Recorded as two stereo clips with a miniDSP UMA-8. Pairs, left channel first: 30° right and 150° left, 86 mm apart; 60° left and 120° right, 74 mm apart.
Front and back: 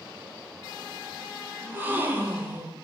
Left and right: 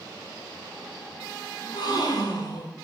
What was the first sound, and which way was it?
A gasp, 80° left.